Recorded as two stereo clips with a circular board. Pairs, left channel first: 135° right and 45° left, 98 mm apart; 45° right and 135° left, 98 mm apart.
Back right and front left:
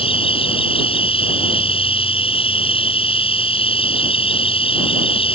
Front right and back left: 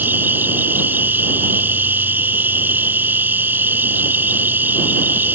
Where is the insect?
155° right.